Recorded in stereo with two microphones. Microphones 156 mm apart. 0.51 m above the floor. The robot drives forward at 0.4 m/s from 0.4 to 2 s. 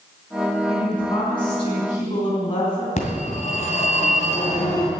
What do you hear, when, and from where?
0.7 s a woman speaking: 30° left (ahead or behind), 4 m; by 2.9 s 35° left (ahead or behind), 3.5 m
3.0 s a phone ringing: 50° left (ahead or behind), 2 m